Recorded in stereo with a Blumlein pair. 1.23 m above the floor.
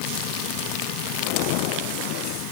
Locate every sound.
Only background noise.